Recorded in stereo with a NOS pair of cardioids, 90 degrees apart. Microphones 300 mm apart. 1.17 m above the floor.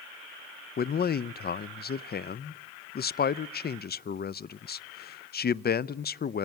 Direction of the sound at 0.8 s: 30° left.